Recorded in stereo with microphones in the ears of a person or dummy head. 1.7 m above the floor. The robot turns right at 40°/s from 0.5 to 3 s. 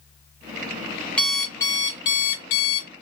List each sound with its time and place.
1.2 s an alarm clock: 15° left, 0.9 m; by 2.9 s 85° left, 0.9 m